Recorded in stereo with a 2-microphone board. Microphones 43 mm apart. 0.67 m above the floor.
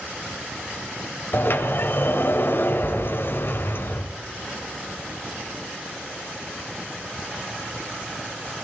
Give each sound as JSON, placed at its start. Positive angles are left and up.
{"t": 1.3, "sound": "a sliding door", "side_deg": 60, "distance_m": 1.9}